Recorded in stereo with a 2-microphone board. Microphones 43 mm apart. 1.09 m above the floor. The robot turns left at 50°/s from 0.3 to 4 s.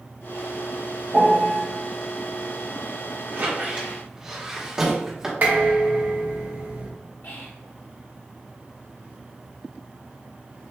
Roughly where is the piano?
Right.